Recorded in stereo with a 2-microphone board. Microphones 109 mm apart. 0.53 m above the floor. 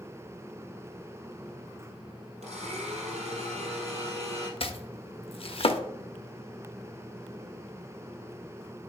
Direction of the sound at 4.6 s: 55° left (ahead or behind).